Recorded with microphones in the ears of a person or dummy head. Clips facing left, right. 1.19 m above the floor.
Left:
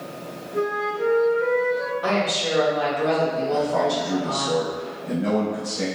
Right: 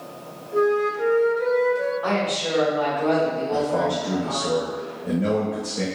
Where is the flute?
55° right (ahead or behind), 1.4 m.